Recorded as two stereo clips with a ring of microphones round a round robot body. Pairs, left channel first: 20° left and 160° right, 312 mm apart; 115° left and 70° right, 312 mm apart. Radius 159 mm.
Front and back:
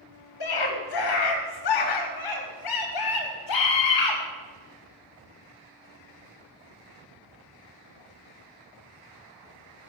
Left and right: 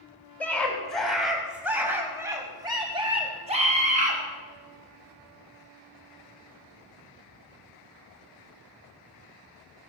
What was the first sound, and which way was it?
A scream, 30° left.